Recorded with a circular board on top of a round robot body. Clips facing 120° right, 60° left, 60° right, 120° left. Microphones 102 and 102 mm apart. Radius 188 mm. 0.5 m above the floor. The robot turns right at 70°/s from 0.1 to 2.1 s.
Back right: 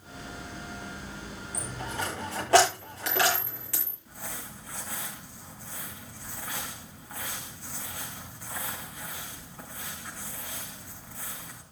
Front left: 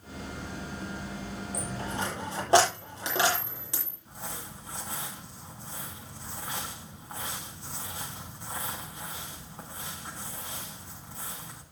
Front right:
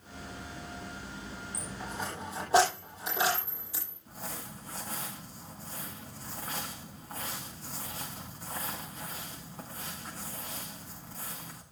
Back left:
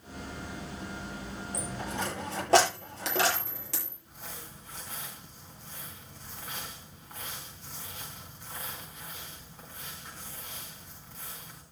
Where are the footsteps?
No footsteps in this recording.